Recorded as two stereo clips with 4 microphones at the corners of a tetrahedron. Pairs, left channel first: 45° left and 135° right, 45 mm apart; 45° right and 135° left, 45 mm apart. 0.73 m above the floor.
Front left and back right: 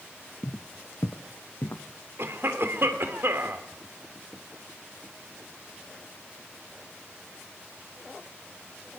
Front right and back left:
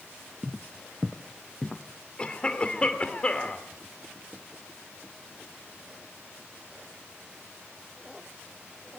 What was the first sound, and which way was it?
Footsteps, 65° left.